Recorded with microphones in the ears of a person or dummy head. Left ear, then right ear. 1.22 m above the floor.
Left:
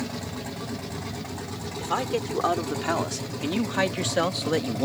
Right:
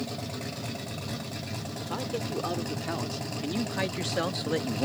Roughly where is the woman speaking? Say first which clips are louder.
Left 8 dB; left.